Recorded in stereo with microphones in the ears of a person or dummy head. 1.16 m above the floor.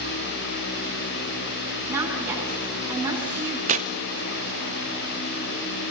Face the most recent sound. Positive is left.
turn(degrees=-45)  # may be behind; listen again after turning